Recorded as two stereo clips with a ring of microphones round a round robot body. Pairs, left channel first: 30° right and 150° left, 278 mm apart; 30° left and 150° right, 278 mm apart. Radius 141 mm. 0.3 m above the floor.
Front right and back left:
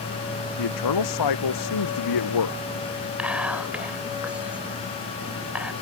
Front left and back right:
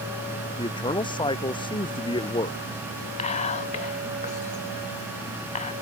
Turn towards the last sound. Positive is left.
turn(degrees=70)